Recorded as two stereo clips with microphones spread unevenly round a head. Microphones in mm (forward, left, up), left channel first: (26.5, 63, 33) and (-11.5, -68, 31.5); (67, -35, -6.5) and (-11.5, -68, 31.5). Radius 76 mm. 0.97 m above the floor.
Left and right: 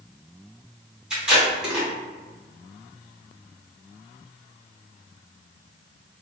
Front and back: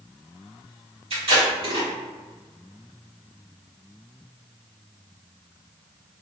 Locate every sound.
1.1 s tape being pulled: 170° left, 1.2 m